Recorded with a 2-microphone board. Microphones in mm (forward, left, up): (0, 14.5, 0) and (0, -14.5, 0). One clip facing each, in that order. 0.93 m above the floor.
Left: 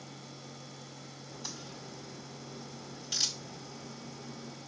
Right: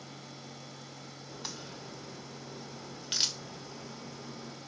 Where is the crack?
45° right (ahead or behind), 1.3 m.